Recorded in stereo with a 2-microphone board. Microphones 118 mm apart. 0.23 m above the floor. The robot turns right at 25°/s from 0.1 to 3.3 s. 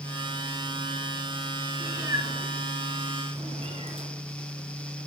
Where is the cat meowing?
20° right (ahead or behind), 1.6 m; by 4.1 s 55° right (ahead or behind), 1.6 m.